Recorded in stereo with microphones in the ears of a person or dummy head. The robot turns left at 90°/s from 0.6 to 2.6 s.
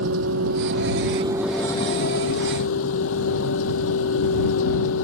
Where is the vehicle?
95° right; by 5.0 s 85° left.